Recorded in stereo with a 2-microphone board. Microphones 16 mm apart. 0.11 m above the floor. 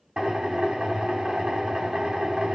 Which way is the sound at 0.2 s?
80° right.